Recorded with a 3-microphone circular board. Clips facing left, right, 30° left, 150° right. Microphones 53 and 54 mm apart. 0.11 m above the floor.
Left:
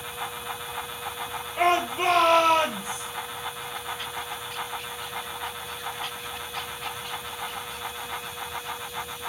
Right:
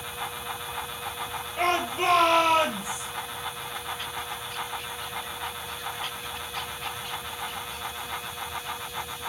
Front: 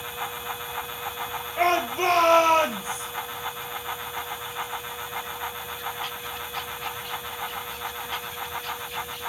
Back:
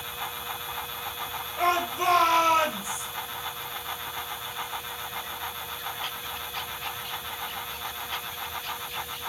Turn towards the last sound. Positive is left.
turn(degrees=-5)